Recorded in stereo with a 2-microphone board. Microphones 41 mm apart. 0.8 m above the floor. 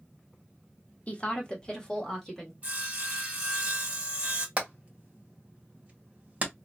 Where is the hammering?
35° right (ahead or behind), 1.5 m.